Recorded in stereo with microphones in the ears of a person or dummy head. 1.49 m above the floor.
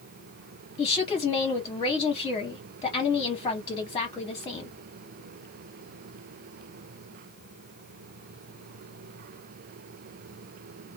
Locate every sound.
0.8 s a woman speaking: 20° left (ahead or behind), 0.8 m